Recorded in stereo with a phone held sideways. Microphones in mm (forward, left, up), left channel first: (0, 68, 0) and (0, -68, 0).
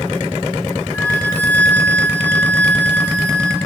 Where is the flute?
15° left (ahead or behind), 1.5 m.